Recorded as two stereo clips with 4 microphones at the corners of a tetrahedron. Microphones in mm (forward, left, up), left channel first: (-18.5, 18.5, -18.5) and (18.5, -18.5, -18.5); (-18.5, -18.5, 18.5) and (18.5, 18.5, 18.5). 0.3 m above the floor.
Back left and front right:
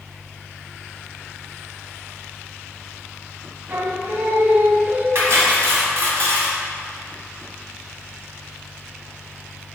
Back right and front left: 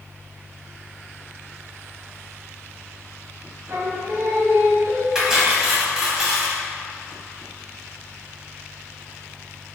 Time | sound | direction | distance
3.7 | singing | straight ahead | 0.6 m
5.2 | cutlery clinking | 35° right | 1.3 m